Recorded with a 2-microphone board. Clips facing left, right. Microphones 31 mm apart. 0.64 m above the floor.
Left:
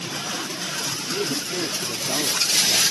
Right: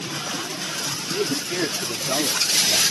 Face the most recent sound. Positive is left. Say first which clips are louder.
# right 2 dB
turn(degrees=-45)  # may be behind; listen again after turning